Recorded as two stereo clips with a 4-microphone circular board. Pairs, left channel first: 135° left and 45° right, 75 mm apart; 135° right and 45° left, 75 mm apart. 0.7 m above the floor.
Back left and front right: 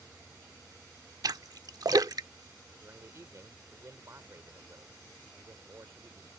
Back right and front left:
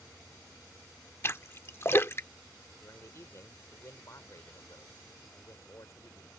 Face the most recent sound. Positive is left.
turn(degrees=-90)